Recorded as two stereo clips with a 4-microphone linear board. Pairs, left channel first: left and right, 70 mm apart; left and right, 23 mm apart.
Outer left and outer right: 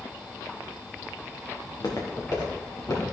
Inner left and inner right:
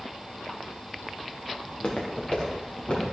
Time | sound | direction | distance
1.6 | footsteps | 60° left (ahead or behind) | 4 m